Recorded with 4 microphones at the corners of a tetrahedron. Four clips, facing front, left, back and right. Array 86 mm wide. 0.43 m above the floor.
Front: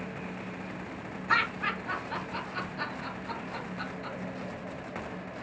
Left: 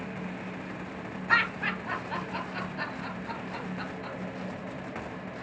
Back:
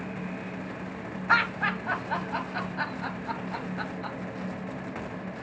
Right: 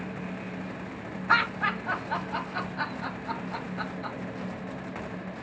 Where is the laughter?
145° right, 2 m.